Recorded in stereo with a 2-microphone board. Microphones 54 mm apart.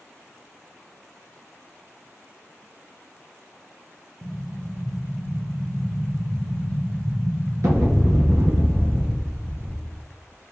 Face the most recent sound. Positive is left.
turn(degrees=-70)  # may be behind; listen again after turning